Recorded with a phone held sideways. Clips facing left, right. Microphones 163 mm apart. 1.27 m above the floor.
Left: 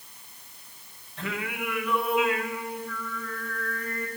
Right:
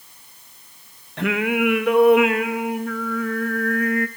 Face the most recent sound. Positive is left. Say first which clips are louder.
# right 13 dB
turn(degrees=-75)  # may be behind; listen again after turning